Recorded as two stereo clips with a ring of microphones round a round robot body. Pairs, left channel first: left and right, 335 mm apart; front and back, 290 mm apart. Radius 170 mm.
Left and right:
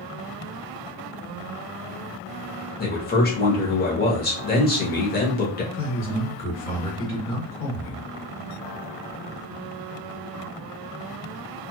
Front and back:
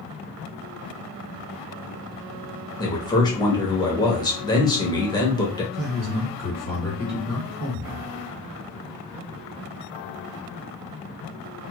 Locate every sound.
2.8 s a man speaking: 65° left, 1.0 m
5.7 s a man speaking: 160° left, 1.9 m